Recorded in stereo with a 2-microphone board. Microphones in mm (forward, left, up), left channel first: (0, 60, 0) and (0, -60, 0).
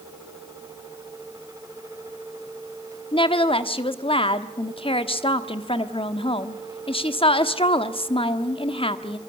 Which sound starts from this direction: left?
A woman speaking, at 3.1 s.